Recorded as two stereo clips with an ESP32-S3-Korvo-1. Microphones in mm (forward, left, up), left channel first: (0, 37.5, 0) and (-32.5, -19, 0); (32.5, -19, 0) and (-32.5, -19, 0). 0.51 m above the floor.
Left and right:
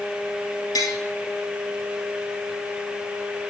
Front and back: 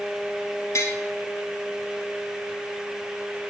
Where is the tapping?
40° left, 1.6 m.